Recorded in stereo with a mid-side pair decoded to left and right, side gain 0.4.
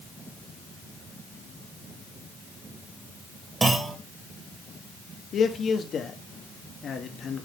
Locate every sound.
3.6 s a clunk: 35° right, 2.0 m
5.3 s a man speaking: 60° left, 1.4 m